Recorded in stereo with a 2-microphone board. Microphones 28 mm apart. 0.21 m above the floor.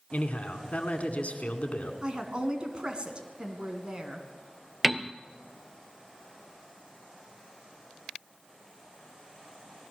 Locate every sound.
0.1 s a man speaking: 50° left (ahead or behind), 2 m
2.0 s a woman speaking: 35° right (ahead or behind), 2.5 m
4.8 s a piano: 5° right (ahead or behind), 0.7 m